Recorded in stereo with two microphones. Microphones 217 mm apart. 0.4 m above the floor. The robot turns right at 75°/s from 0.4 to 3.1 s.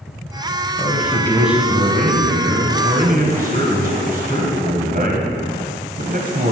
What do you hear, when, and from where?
0.8 s a man speaking: 130° left, 2 m; by 6.5 s 55° right, 2 m